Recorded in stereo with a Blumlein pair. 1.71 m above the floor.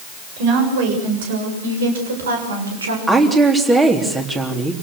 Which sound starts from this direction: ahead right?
A woman speaking, at 0.4 s.